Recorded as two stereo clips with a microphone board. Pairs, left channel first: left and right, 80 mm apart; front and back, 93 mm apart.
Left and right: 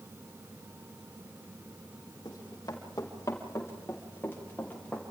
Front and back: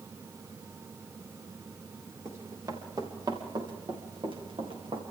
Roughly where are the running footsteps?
Behind left.